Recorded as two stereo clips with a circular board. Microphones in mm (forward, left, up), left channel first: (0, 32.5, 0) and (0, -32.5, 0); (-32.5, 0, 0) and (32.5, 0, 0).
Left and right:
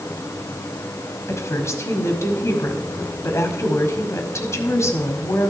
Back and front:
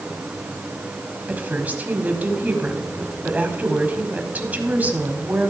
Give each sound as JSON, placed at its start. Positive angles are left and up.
{"t": 1.3, "sound": "a woman speaking", "azimuth_deg": 60, "distance_m": 1.6}